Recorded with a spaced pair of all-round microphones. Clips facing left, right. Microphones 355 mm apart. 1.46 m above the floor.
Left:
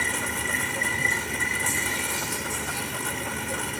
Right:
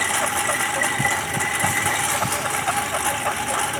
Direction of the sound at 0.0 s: 85° right.